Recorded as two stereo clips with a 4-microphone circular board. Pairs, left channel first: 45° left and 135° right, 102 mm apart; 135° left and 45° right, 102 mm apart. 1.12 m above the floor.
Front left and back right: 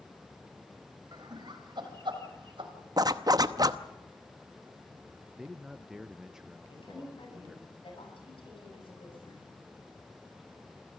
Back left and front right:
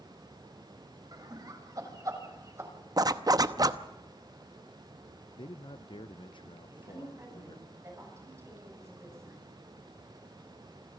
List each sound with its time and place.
1.1 s laughter: 90° right, 6.5 m; by 2.7 s 105° right, 6.5 m
3.0 s a zipper: 90° right, 0.8 m
5.3 s a man speaking: 140° left, 0.6 m
6.7 s a woman speaking: 15° left, 9.5 m